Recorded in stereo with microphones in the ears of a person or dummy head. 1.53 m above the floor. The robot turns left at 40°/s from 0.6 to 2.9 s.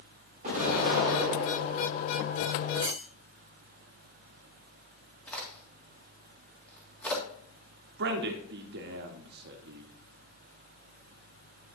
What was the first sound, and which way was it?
An explosion, 135° right.